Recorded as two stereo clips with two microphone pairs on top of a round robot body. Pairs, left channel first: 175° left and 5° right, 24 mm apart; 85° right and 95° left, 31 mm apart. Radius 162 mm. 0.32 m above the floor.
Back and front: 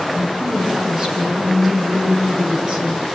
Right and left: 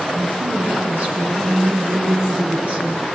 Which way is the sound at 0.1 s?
50° left.